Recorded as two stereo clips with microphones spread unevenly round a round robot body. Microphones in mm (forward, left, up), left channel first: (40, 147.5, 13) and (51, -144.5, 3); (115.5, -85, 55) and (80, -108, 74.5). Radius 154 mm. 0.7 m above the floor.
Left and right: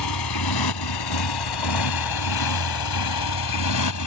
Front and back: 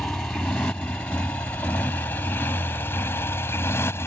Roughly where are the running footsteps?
I don't hear running footsteps.